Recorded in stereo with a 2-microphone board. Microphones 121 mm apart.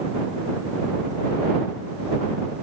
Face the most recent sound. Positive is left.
No sound to turn to.